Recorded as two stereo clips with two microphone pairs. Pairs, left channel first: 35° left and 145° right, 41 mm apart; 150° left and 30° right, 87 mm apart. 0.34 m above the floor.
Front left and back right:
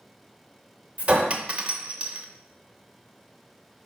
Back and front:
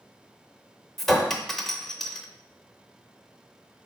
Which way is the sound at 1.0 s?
125° right.